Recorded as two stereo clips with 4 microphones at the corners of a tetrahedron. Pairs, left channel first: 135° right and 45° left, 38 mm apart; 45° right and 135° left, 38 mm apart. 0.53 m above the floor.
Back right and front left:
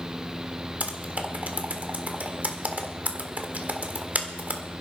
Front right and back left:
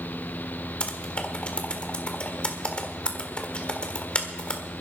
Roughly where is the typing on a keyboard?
Ahead.